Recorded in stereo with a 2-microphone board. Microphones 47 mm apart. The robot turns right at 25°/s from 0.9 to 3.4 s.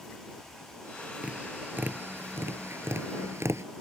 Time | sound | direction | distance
1.2 | tapping | 25° right (ahead or behind) | ?